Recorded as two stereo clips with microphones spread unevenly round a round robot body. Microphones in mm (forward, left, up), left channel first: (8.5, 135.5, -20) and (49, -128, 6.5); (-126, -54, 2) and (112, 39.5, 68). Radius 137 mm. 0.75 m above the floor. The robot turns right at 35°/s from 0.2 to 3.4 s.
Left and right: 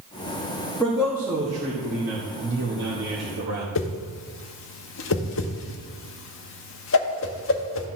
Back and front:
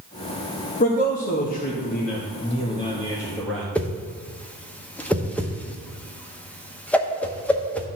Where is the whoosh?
130° left, 0.7 m.